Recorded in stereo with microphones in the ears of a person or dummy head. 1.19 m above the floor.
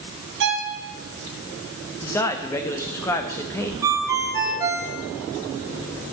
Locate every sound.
0.4 s a violin: 70° right (ahead or behind), 2.5 m
2.0 s a man speaking: 15° left (ahead or behind), 1.4 m
3.8 s a ringtone: 15° right (ahead or behind), 0.8 m